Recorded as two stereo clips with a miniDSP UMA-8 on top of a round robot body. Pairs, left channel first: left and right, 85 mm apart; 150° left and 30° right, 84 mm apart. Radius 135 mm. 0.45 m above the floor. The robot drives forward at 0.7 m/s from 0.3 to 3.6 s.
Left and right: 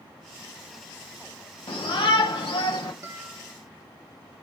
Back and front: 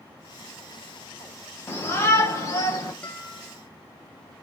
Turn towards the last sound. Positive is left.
turn(degrees=-145)